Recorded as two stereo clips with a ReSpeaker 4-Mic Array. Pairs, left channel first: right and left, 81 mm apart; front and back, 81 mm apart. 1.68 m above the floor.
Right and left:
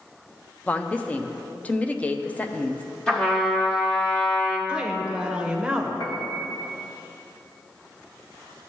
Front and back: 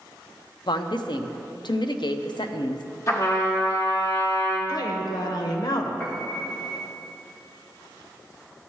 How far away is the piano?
About 1.4 m.